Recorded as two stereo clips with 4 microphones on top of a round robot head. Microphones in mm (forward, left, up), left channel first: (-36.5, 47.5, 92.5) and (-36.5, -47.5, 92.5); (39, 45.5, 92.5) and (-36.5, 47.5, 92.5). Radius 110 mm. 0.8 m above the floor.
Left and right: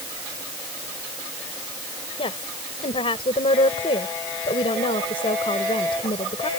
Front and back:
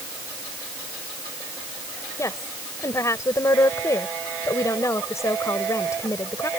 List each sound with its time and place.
2.2 s a woman speaking: 50° left